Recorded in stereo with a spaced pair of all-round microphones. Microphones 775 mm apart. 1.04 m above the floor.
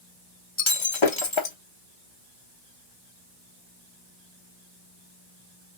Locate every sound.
0.6 s breaking glass: 40° left (ahead or behind), 0.9 m